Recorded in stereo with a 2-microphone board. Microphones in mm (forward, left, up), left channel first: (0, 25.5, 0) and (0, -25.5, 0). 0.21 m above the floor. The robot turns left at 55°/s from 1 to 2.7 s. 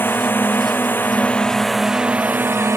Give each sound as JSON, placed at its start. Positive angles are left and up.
{"t": 0.0, "sound": "a drone", "side_deg": 45}